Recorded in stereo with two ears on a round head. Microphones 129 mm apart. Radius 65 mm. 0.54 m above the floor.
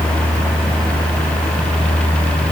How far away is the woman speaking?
I don't hear a woman speaking.